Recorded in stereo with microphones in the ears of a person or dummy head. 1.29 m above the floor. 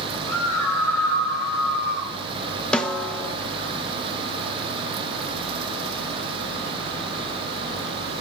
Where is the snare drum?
Centre (ahead or behind), 0.7 m.